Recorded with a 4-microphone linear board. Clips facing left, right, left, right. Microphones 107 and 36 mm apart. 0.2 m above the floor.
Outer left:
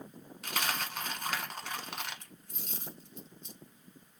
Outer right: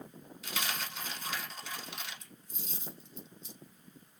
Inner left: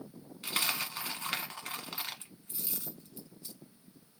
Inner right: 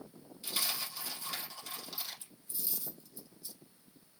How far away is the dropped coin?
About 0.8 m.